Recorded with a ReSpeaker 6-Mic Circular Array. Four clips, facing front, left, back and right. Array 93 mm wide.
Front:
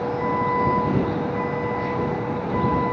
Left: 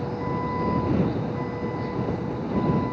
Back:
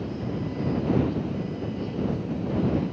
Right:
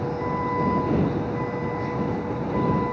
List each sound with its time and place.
0.0 s a vehicle: 10° right; by 2.9 s 15° right